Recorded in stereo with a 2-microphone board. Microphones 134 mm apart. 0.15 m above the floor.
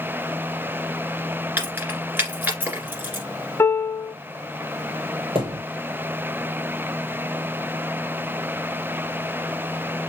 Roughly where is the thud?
Right.